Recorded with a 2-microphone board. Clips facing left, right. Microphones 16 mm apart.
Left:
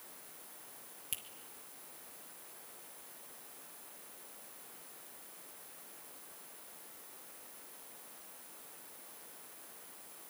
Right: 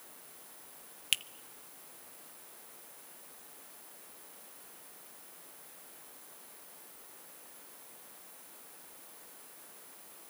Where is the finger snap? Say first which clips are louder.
Right 14 dB; 55° right (ahead or behind), 0.9 m.